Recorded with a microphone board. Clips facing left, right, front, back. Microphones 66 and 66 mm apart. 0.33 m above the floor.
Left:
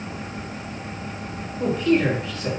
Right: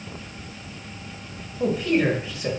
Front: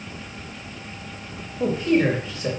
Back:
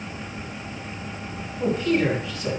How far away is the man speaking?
About 1.2 m.